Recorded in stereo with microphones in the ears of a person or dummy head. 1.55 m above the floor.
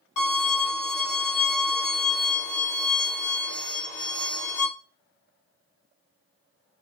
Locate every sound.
0.2 s a violin: 35° left (ahead or behind), 0.9 m